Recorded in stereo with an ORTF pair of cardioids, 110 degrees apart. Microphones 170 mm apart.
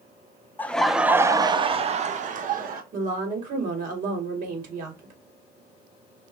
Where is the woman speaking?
50° right, 2.5 m.